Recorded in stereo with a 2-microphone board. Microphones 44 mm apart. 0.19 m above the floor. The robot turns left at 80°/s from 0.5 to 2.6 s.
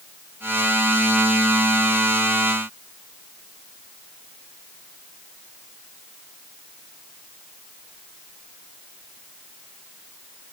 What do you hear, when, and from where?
Only background noise.